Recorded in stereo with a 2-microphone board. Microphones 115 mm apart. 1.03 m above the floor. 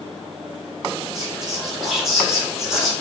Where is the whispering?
5° right (ahead or behind), 1.7 m.